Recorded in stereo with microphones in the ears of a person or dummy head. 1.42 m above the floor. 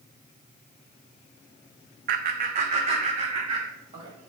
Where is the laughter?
45° right (ahead or behind), 0.6 m; by 4.1 s 25° right (ahead or behind), 1.8 m.